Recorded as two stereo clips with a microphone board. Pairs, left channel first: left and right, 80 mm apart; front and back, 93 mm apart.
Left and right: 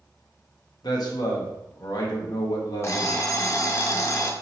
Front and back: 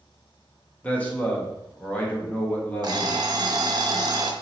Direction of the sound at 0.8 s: 70° left.